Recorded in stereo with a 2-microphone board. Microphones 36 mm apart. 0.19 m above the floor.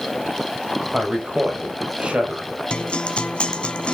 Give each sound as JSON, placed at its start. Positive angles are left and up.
{"t": 0.9, "sound": "a man speaking", "side_deg": -25, "distance_m": 4.5}
{"t": 2.7, "sound": "a guitar", "side_deg": 35, "distance_m": 1.6}